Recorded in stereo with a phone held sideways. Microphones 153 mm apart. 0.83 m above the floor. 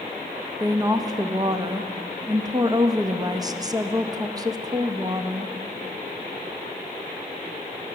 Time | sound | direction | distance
0.6 | a woman speaking | 25° right (ahead or behind) | 0.6 m